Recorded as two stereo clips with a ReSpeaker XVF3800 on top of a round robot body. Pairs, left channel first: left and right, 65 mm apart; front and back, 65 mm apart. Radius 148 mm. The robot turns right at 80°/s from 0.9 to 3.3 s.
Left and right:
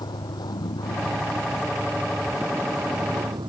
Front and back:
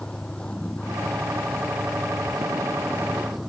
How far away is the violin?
No violin in this recording.